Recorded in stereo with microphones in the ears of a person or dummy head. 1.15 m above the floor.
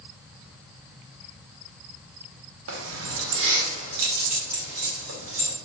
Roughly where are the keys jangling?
Right.